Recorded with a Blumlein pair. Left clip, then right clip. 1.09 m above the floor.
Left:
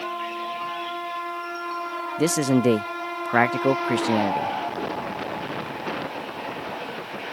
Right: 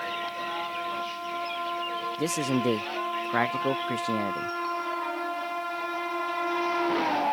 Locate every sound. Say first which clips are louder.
2.2 s a man speaking: left 8 dB; 20° left